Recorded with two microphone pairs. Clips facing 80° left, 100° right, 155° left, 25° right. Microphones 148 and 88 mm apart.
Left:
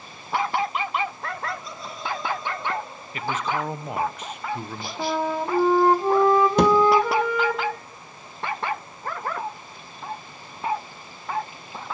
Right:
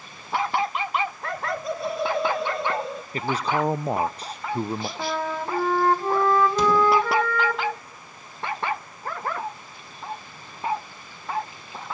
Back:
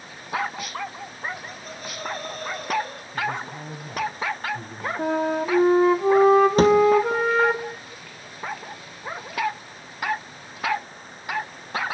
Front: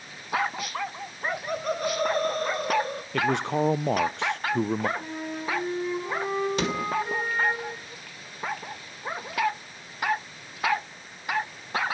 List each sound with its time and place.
1.2 s laughter: 50° right, 1.0 m; by 3.0 s 90° right, 1.3 m
3.1 s a man speaking: 40° right, 1.0 m
5.0 s a flute: 155° left, 2 m
6.6 s a thud: 105° left, 2.5 m